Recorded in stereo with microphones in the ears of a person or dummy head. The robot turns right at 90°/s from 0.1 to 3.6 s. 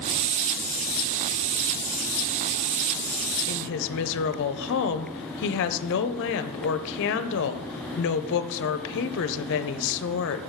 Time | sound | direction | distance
3.5 | a woman speaking | 50° left (ahead or behind) | 0.6 m